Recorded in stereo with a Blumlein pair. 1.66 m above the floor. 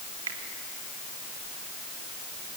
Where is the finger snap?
60° right, 3 m.